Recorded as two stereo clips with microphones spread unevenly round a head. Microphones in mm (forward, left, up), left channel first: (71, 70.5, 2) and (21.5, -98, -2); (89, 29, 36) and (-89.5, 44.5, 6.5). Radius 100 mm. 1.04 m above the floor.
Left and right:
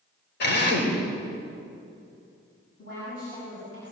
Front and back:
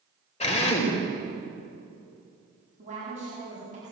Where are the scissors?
I don't hear scissors.